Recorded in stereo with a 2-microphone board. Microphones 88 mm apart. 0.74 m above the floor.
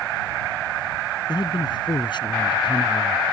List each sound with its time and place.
1.3 s a man speaking: 55° left (ahead or behind); by 3.2 s 65° left (ahead or behind)